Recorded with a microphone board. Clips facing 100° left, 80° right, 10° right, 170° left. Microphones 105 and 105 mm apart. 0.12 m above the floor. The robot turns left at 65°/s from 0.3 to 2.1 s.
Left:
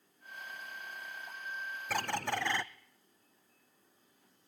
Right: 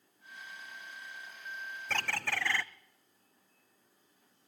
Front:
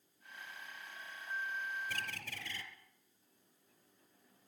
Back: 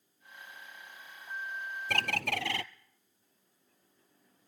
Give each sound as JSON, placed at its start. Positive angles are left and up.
{"t": 1.9, "sound": "a bird", "azimuth_deg": -175, "distance_m": 1.2}